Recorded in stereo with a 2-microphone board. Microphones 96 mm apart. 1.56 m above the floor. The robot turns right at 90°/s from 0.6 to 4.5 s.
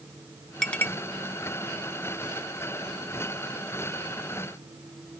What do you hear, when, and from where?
0.6 s a clink: 5° left (ahead or behind), 0.8 m; by 0.9 s 25° left (ahead or behind), 0.8 m